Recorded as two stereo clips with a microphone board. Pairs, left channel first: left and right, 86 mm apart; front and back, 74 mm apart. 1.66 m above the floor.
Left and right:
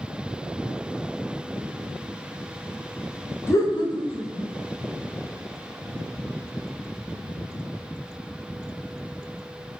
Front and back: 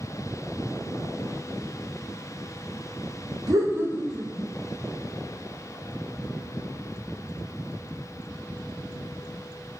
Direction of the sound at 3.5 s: 150° left.